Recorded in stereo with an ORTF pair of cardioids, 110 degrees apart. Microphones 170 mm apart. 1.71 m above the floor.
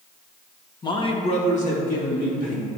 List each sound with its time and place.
0.8 s a man speaking: 25° left, 1.3 m; by 2.7 s 60° left, 4 m